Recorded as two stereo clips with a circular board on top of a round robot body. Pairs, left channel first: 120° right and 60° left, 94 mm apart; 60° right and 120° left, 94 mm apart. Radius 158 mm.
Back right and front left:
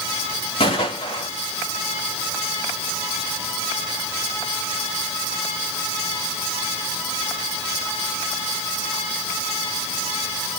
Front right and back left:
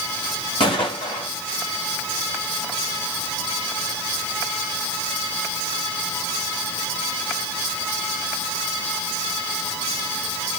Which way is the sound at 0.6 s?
90° right.